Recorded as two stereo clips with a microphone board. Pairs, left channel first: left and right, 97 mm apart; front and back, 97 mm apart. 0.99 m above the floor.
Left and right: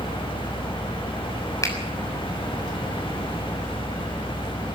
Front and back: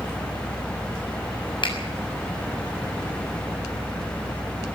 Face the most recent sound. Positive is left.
turn(degrees=35)